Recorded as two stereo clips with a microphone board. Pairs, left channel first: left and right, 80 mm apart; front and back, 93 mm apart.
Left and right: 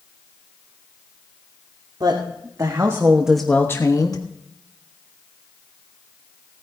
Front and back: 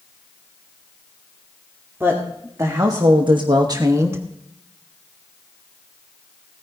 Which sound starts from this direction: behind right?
A woman speaking, at 2.0 s.